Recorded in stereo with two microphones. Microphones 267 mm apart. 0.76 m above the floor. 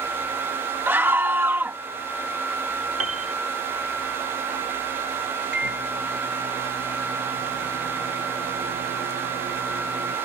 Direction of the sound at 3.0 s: 60° right (ahead or behind).